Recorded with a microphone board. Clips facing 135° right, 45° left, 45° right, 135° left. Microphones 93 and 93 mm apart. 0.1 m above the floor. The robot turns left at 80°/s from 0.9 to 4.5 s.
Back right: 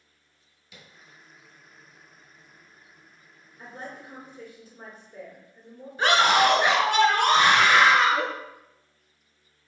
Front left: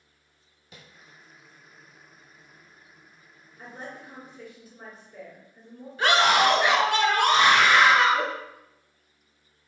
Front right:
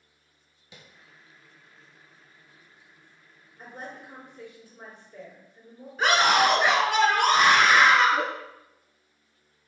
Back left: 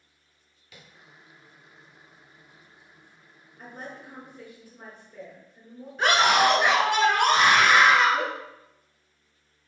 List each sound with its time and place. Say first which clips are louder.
0.7 s tapping: front left 1 dB, even; 15° left, 0.8 m
3.6 s a woman speaking: even, even; 45° left, 1.8 m; by 5.9 s 30° right, 1.8 m
6.0 s a scream: back right 1 dB, even; 120° right, 1.1 m